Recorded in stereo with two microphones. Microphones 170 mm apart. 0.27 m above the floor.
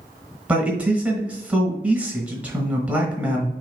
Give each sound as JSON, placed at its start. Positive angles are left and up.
{"t": 0.5, "sound": "a man speaking", "side_deg": -10, "distance_m": 1.2}